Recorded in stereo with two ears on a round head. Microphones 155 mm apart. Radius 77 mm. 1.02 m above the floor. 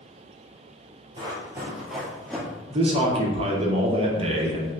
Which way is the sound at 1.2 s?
30° right (ahead or behind).